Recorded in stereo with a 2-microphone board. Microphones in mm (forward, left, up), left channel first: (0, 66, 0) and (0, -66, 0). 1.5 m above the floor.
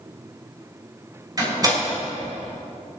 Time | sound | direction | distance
1.4 | a door slam | 30° right (ahead or behind) | 6 m